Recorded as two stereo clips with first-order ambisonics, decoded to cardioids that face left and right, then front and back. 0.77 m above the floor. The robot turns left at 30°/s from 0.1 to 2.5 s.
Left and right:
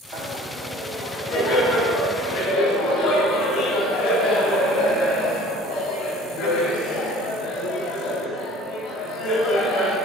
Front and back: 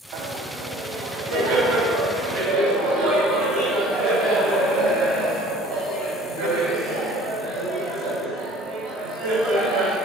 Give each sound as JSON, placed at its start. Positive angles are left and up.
{"t": 0.1, "sound": "laughter", "azimuth_deg": -155, "distance_m": 4.0}